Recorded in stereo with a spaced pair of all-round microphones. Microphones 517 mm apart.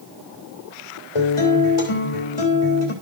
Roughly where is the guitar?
Left.